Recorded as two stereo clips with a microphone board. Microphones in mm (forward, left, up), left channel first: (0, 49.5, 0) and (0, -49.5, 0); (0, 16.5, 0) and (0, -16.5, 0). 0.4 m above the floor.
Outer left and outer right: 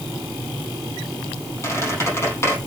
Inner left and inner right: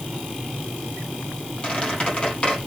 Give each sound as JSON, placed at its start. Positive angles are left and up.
{"t": 1.6, "sound": "a squeak", "side_deg": 30, "distance_m": 4.0}